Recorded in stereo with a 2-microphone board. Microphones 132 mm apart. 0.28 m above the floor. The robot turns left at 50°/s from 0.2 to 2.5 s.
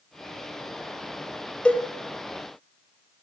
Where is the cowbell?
10° left (ahead or behind), 0.7 m; by 1.8 s 15° left (ahead or behind), 0.7 m.